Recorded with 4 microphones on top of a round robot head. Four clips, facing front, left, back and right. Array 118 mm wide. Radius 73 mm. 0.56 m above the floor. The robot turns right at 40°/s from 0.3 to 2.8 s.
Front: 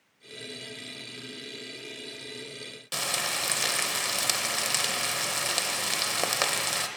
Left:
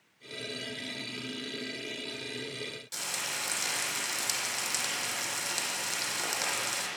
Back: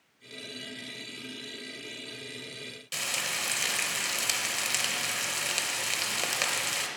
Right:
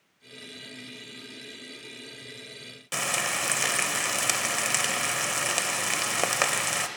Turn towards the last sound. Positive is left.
turn(degrees=-60)